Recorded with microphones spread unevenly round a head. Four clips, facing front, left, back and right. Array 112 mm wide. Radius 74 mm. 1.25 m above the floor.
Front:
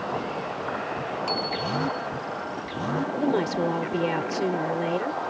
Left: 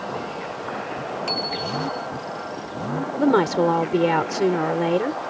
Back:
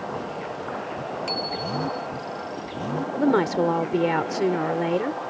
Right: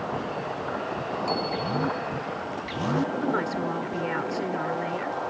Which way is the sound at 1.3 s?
140° left.